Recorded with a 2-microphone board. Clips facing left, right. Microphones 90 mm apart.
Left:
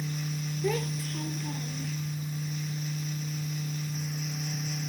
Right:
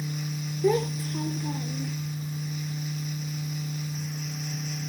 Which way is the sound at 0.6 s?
25° right (ahead or behind).